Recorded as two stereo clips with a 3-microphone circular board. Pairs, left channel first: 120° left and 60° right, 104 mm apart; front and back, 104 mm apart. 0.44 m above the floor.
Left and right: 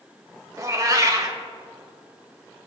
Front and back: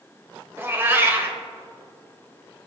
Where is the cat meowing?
115° right, 1.1 m.